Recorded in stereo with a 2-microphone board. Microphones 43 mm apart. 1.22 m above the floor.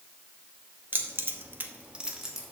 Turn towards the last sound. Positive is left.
turn(degrees=-5)  # may be behind; listen again after turning